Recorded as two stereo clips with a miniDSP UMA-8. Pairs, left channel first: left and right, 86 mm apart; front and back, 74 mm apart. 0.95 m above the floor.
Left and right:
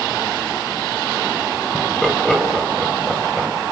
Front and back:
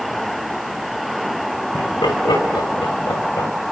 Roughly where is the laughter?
Ahead.